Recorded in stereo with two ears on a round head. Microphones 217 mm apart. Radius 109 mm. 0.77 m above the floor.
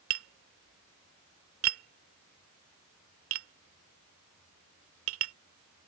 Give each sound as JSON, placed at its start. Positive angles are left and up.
{"t": 0.1, "sound": "tapping", "side_deg": -60}